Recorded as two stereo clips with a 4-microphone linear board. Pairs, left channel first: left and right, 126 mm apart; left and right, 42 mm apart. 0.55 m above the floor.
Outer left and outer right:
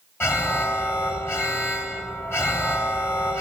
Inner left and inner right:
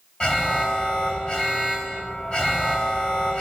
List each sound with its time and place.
0.2 s an alarm: 20° left (ahead or behind), 1.8 m